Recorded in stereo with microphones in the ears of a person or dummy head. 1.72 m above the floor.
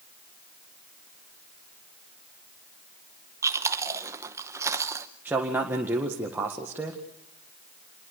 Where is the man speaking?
15° right (ahead or behind), 1.8 m.